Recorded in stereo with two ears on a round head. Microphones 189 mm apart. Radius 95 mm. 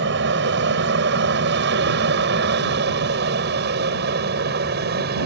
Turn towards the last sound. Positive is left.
turn(degrees=-50)  # may be behind; listen again after turning